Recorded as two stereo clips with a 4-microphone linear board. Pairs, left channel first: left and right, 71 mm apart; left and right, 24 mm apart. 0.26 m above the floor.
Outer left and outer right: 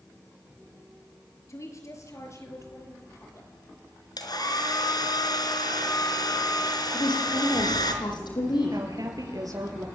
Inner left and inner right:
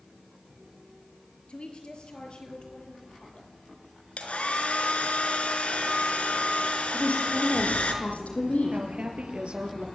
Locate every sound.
1.5 s a woman speaking: 45° left (ahead or behind), 5.5 m; by 3.5 s 40° left (ahead or behind), 8 m
4.2 s a hair dryer: 65° left (ahead or behind), 4 m
6.9 s a woman speaking: 85° left, 9 m
8.7 s a woman speaking: 55° right (ahead or behind), 6.5 m